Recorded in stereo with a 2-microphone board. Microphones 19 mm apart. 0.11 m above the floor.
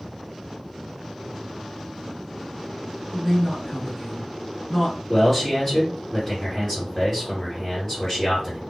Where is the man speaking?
25° left (ahead or behind), 2.0 m.